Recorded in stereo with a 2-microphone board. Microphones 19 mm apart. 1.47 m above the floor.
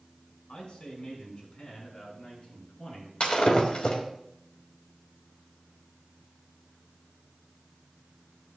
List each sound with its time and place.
0.5 s a man speaking: 70° left (ahead or behind), 5.5 m; by 3.1 s 50° left (ahead or behind), 7 m
3.2 s breaking glass: 70° left (ahead or behind), 3.5 m